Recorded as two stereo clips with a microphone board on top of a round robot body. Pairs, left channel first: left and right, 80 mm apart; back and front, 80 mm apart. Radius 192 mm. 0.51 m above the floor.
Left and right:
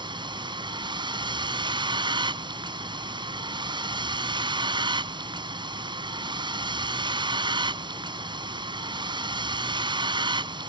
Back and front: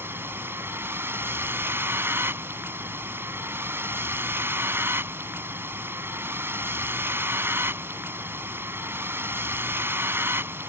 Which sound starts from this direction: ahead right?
A vehicle, at 0.0 s.